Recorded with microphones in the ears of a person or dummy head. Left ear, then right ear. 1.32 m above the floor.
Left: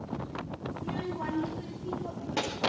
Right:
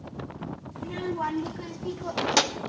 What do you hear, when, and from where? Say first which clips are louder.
0.8 s a child speaking: right 6 dB; 30° right (ahead or behind), 1.9 m; by 2.6 s 65° right (ahead or behind), 1.2 m